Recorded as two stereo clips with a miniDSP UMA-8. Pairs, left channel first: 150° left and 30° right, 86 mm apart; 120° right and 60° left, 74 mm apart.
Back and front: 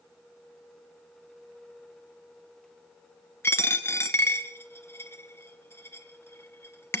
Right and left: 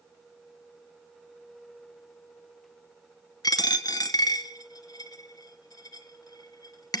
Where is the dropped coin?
150° right, 0.9 m.